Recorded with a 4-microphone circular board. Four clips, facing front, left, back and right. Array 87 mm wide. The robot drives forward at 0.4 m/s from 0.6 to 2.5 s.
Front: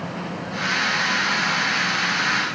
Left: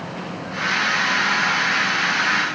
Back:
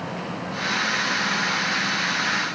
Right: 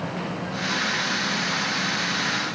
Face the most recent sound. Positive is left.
No sound to turn to.